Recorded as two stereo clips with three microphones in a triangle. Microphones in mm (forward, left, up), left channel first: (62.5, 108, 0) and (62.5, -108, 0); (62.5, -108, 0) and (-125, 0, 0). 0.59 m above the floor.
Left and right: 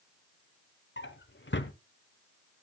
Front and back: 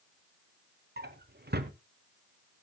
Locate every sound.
1.0 s a drawer: 115° left, 1.0 m